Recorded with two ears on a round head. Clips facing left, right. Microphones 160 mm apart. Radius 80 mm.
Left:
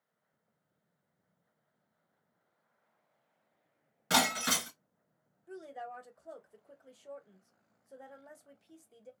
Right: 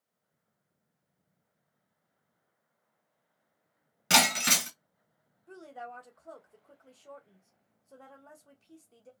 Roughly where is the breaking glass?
Right.